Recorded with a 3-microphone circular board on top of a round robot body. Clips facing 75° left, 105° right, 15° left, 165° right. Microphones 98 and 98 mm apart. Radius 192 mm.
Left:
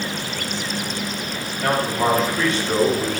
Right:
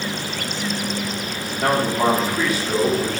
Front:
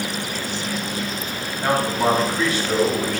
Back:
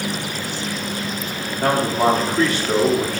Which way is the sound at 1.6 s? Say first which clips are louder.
Right 2 dB, back 2 dB; 150° right.